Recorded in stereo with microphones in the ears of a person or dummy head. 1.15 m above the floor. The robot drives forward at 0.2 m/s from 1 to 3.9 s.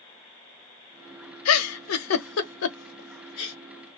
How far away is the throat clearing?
No throat clearing in this recording.